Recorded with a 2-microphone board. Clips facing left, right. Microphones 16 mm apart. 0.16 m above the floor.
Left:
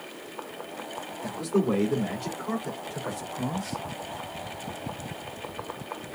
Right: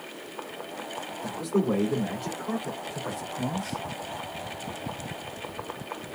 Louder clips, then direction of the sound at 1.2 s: Left 1 dB; 60° left (ahead or behind).